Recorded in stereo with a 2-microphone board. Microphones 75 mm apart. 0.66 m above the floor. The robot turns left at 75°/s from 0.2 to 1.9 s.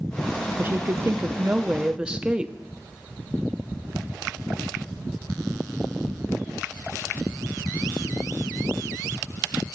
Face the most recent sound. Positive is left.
turn(degrees=-155)